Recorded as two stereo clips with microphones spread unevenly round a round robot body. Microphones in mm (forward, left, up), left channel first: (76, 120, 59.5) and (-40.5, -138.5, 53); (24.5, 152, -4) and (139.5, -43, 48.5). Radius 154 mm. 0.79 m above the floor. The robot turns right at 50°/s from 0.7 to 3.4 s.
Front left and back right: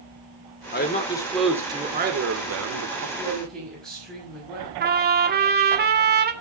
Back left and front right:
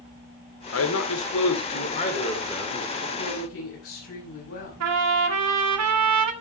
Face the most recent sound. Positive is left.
turn(degrees=-60)